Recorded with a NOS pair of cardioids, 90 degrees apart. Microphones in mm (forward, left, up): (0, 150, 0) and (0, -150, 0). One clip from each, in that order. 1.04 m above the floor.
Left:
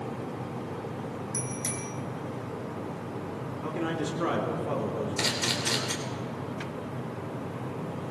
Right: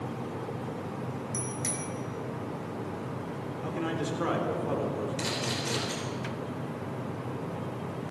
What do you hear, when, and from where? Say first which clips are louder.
1.3 s a bicycle bell: even; 5° left, 3 m
3.6 s a man speaking: left 1 dB; 5° left, 3.5 m
5.2 s a camera shutter: left 7 dB; 55° left, 3.5 m